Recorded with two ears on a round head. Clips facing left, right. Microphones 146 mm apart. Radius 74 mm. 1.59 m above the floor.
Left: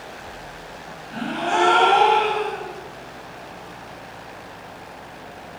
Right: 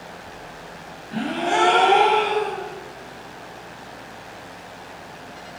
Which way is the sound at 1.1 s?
20° right (ahead or behind).